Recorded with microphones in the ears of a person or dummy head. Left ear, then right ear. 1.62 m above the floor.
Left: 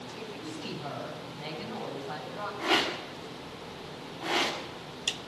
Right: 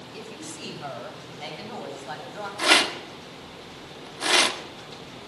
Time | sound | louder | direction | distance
0.1 | a woman speaking | right 3 dB | 75° right (ahead or behind) | 10 m
2.6 | a rattle | right 8 dB | 70° right (ahead or behind) | 2.5 m